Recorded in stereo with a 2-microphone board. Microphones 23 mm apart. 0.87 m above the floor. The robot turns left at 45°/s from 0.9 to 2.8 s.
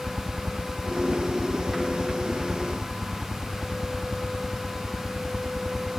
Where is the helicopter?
75° right (ahead or behind); by 6.0 s 20° left (ahead or behind).